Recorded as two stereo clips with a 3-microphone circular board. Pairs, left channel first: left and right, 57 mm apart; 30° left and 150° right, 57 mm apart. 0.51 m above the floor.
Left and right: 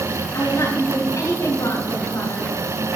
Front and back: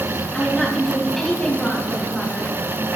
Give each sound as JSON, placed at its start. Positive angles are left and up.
{"t": 0.3, "sound": "a woman speaking", "azimuth_deg": 110, "distance_m": 3.5}